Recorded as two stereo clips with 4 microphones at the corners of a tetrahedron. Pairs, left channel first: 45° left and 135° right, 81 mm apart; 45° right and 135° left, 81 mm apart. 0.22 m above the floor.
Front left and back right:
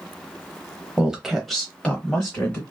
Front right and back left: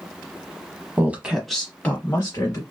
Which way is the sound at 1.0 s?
160° left.